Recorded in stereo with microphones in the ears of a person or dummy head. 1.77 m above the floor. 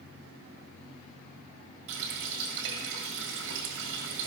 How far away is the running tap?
About 1.5 m.